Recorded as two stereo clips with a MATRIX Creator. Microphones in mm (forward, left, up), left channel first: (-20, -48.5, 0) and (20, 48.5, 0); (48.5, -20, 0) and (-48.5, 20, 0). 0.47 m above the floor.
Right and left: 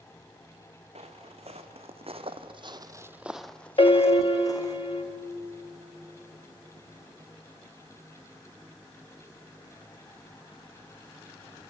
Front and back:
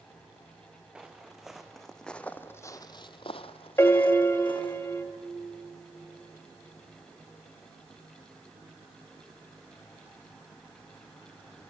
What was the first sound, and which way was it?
Footsteps, 75° left.